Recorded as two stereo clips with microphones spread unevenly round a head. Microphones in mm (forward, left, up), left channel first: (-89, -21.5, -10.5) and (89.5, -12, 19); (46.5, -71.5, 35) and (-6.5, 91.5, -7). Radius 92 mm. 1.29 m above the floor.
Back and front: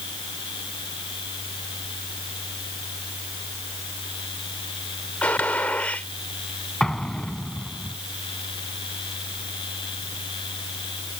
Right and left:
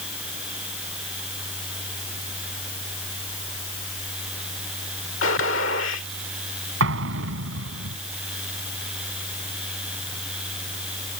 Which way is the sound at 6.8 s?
95° left.